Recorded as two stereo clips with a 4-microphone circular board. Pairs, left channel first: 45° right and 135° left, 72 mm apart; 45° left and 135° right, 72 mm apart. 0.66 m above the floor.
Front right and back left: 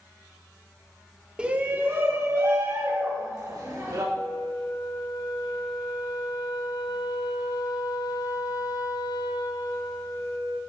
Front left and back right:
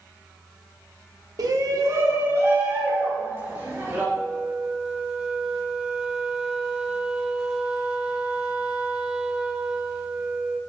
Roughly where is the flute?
Ahead right.